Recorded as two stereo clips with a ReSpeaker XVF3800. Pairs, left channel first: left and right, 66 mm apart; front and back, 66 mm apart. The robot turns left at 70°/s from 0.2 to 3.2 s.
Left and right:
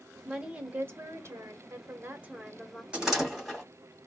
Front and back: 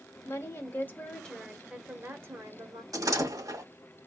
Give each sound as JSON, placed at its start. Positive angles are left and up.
{"t": 0.2, "sound": "a woman speaking", "azimuth_deg": -5, "distance_m": 1.1}
{"t": 2.9, "sound": "a door slam", "azimuth_deg": -160, "distance_m": 2.0}